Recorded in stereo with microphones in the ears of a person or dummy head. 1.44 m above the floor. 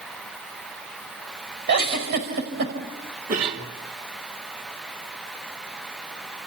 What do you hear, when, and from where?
1.7 s a giggle: 60° right (ahead or behind), 5 m
3.3 s a cough: 50° right (ahead or behind), 3.5 m